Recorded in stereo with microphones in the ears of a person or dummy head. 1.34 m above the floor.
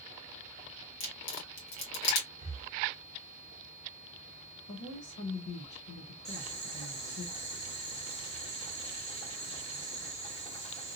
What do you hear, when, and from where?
1.0 s a crack: 70° left (ahead or behind), 1.4 m
2.4 s breathing: 35° right (ahead or behind), 0.6 m
4.7 s a woman speaking: 50° left (ahead or behind), 0.7 m
6.2 s boiling: 30° left (ahead or behind), 1.1 m